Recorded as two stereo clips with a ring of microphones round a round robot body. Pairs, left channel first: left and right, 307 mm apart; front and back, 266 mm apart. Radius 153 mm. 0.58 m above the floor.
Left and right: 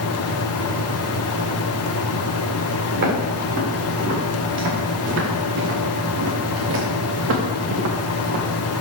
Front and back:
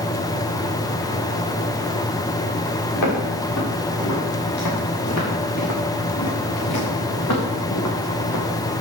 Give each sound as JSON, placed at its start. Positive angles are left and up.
{"t": 2.9, "sound": "footsteps", "azimuth_deg": -35, "distance_m": 5.5}